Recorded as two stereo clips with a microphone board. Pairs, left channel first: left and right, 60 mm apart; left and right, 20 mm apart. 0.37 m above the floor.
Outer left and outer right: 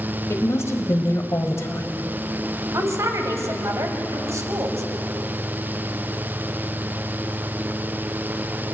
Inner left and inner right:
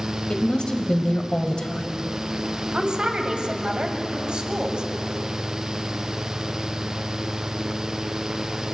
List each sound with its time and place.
0.3 s a woman speaking: 50° left (ahead or behind), 1.7 m
2.7 s a woman speaking: 55° right (ahead or behind), 2.5 m